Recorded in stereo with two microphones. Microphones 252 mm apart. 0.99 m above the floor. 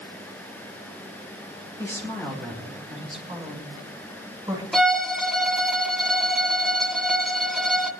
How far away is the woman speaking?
About 4 m.